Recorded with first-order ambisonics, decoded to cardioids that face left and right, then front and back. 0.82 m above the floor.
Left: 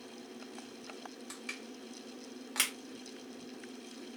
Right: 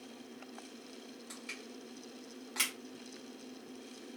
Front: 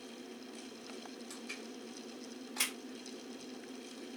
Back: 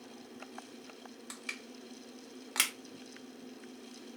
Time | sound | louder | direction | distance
1.3 | crushing | left 1 dB, back 5 dB | 160° left | 0.9 m